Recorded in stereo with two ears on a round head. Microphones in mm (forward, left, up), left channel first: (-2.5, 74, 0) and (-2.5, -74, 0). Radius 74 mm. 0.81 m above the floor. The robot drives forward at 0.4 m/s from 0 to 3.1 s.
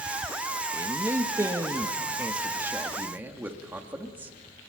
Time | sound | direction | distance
0.7 | a man speaking | 15° right (ahead or behind) | 1.1 m